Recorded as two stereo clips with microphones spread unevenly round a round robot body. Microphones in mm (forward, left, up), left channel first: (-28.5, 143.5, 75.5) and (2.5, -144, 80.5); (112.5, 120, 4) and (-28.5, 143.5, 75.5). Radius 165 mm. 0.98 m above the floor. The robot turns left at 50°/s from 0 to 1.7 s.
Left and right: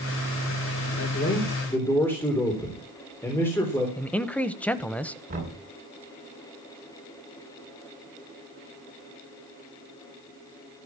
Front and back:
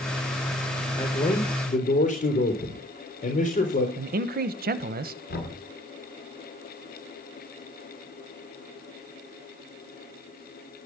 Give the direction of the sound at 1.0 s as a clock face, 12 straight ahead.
10 o'clock.